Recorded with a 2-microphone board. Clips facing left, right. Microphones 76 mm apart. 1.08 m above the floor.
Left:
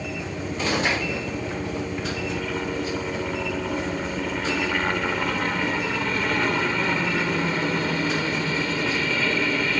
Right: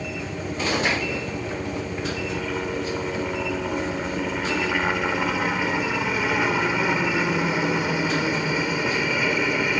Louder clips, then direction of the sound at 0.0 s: Even; centre (ahead or behind).